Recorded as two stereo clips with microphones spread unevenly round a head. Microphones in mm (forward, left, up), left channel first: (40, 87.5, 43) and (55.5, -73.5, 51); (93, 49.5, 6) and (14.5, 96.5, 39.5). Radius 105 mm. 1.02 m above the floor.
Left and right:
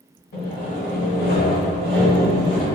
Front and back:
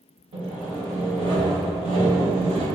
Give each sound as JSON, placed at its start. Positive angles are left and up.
{"t": 0.3, "sound": "sawing", "azimuth_deg": 135, "distance_m": 1.6}